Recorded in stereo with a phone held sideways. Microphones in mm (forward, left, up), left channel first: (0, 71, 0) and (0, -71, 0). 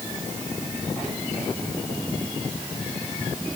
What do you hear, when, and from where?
Only background noise.